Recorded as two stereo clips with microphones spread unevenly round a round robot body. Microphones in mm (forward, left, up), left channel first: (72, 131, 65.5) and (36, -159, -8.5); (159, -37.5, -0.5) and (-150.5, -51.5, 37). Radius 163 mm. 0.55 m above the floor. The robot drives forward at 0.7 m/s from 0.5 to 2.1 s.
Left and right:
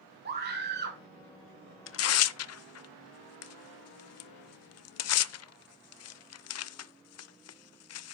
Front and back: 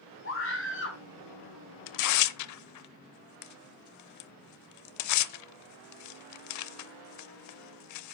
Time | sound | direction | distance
0.2 | a scream | 45° right | 5.5 m
1.9 | tearing paper | 35° left | 0.7 m